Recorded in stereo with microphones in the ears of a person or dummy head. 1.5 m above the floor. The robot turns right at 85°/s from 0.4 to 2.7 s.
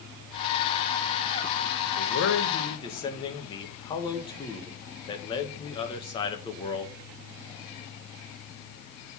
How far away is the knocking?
No knocking in this recording.